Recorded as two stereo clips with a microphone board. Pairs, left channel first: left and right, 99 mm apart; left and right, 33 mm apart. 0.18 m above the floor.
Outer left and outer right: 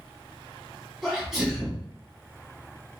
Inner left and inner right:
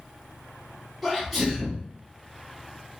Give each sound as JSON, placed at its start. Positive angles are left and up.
{"t": 1.0, "sound": "a sneeze", "side_deg": -5, "distance_m": 1.1}